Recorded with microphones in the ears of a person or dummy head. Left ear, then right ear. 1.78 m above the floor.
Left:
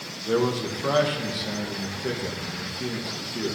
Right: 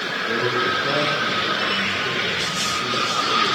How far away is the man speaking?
About 2 m.